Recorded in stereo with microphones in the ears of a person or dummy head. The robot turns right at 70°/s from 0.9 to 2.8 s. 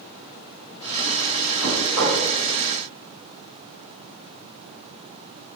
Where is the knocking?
175° left, 2.5 m; by 2.2 s 145° right, 2.5 m.